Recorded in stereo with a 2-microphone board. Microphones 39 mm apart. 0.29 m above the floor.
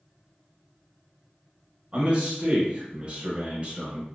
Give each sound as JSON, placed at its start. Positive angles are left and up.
{"t": 1.9, "sound": "a man speaking", "side_deg": -30, "distance_m": 1.2}